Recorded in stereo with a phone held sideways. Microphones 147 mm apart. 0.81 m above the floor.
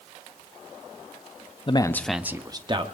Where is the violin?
No violin in this recording.